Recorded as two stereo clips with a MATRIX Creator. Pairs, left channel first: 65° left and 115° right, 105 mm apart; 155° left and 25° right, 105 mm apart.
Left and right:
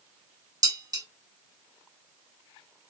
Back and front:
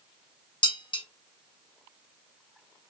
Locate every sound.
0.6 s dishes clattering: 165° right, 2 m